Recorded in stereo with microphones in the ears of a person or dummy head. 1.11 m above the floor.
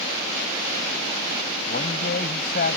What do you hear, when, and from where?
1.7 s a man speaking: 60° left (ahead or behind)